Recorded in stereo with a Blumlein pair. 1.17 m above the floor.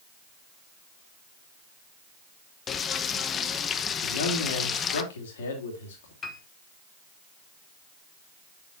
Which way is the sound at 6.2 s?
20° left.